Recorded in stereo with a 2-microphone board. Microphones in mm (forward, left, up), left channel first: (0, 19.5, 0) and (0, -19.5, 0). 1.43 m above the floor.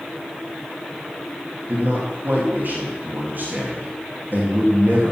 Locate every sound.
1.7 s a man speaking: 45° right (ahead or behind), 2 m